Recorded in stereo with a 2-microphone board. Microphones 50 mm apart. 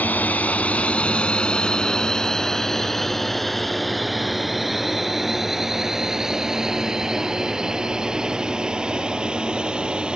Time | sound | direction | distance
0.0 | a drone | 35° left (ahead or behind) | ?